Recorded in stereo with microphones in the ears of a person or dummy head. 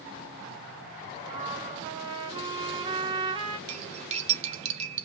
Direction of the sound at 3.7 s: 45° right (ahead or behind).